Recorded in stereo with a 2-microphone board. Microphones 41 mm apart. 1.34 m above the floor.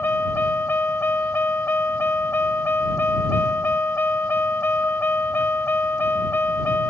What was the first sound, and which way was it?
A vehicle, 60° left (ahead or behind).